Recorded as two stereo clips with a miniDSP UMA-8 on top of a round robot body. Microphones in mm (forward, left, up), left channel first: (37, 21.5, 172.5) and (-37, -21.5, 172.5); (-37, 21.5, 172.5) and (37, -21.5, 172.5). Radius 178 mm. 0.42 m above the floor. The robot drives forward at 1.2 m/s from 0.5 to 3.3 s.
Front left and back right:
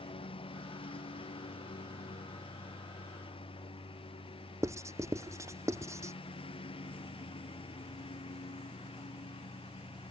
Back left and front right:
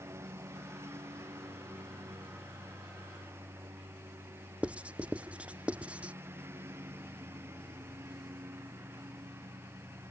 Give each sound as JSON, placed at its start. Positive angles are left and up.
{"t": 0.0, "sound": "a lawn mower", "azimuth_deg": 30}
{"t": 4.6, "sound": "writing", "azimuth_deg": -105}